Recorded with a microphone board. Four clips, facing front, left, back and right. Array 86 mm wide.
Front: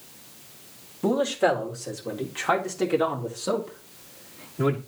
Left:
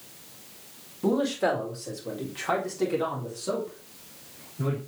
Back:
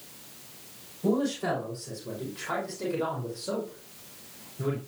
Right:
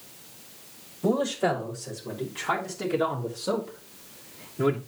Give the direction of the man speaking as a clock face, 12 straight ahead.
11 o'clock.